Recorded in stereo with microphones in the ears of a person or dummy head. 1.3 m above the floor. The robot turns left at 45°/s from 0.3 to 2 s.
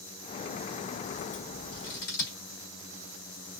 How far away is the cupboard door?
No cupboard door in this recording.